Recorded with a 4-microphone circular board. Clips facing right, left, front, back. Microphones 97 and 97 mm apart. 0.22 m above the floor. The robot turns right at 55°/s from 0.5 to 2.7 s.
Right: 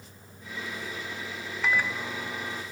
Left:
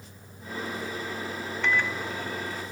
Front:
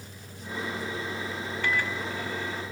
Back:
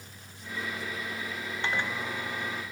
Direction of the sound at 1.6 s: 175° right.